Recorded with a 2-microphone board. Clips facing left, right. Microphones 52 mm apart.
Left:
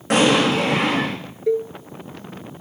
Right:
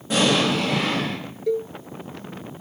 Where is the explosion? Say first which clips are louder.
Left 4 dB; 70° left (ahead or behind), 7 m.